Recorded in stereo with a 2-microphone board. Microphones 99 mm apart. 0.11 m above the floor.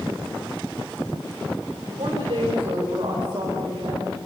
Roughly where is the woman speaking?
Right.